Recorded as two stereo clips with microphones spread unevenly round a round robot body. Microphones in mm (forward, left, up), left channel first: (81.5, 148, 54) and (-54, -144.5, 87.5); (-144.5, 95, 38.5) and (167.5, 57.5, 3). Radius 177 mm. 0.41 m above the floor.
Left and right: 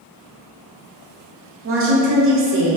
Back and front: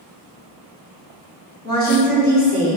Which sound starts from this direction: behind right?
A woman speaking, at 1.6 s.